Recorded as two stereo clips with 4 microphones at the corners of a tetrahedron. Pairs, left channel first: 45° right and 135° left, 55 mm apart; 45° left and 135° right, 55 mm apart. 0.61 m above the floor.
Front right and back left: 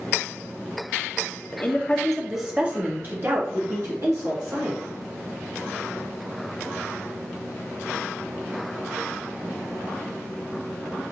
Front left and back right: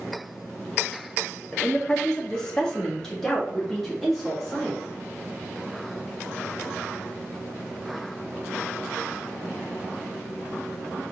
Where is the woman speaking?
30° right, 0.7 m; by 4.8 s 130° left, 1.6 m.